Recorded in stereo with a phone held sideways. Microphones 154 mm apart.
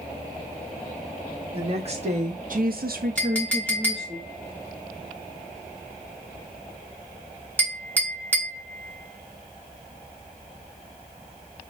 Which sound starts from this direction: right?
A woman speaking, at 1.5 s.